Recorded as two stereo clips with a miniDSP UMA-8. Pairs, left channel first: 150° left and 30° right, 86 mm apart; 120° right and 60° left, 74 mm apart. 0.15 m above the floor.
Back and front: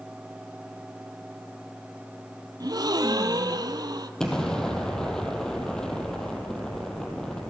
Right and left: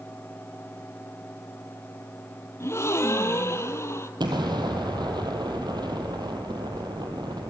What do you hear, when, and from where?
2.6 s a gasp: 70° right, 1.0 m
4.2 s an explosion: 65° left, 2.5 m